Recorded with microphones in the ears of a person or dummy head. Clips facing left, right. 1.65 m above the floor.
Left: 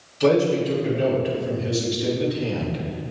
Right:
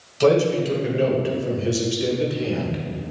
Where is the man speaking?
70° right (ahead or behind), 2.5 m; by 3.1 s 20° right (ahead or behind), 1.7 m.